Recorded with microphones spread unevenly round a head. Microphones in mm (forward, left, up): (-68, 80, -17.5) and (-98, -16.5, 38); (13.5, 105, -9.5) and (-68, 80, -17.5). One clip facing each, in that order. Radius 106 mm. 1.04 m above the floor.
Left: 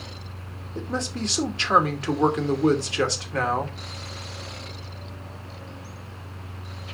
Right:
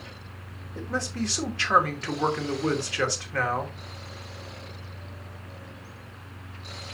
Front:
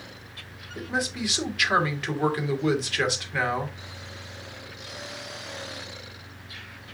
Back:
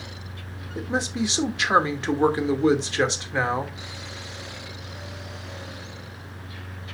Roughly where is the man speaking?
Behind left.